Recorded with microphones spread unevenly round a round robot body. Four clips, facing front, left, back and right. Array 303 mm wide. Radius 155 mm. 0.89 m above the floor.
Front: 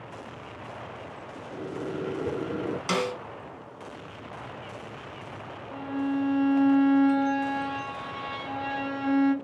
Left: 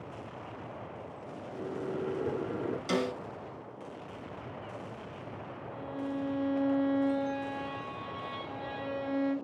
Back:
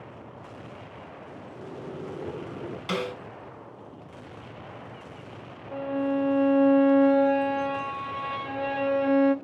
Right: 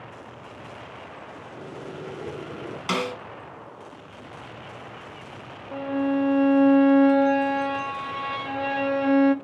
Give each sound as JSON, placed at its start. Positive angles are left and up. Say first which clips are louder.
{"t": 1.5, "sound": "a microwave", "louder": "left 3 dB, front 6 dB", "azimuth_deg": 15, "distance_m": 2.5}
{"t": 2.9, "sound": "a snare drum", "louder": "right 4 dB, front 1 dB", "azimuth_deg": -75, "distance_m": 5.5}
{"t": 5.7, "sound": "a violin", "louder": "right 13 dB, back 2 dB", "azimuth_deg": -100, "distance_m": 1.2}